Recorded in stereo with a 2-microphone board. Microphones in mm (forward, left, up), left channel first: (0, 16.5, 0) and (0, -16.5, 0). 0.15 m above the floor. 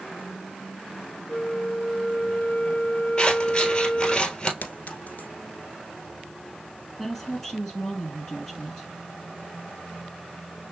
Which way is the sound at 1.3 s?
60° left (ahead or behind).